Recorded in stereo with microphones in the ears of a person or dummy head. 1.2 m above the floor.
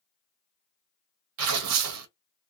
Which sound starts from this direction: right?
Tearing paper, at 1.4 s.